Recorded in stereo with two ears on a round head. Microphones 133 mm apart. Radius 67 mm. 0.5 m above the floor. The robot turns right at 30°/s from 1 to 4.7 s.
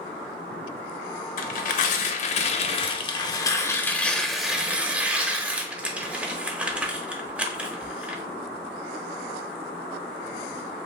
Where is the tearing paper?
90° left, 0.5 m; by 8.2 s 170° right, 0.5 m.